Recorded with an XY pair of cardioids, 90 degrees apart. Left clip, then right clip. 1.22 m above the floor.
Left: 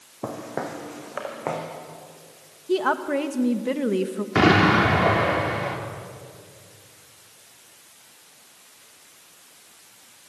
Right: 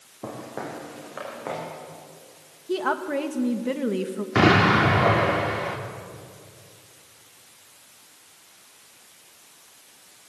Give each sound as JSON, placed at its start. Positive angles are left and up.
{"t": 0.2, "sound": "footsteps", "azimuth_deg": 40, "distance_m": 4.0}
{"t": 2.7, "sound": "a woman speaking", "azimuth_deg": 15, "distance_m": 1.7}
{"t": 4.3, "sound": "an explosion", "azimuth_deg": 0, "distance_m": 3.0}